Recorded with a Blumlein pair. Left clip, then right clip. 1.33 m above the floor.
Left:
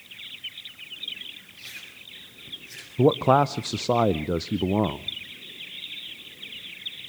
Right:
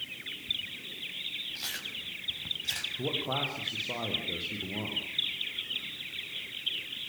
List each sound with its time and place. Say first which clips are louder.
1.6 s chewing: right 4 dB; 40° right, 5 m
3.0 s a man speaking: left 12 dB; 55° left, 0.7 m